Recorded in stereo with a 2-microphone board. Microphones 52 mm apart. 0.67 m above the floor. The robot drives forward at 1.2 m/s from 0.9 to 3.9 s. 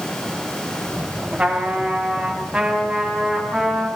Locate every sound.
1.4 s a trumpet: 20° right (ahead or behind), 4.5 m; by 3.9 s 10° right (ahead or behind), 7 m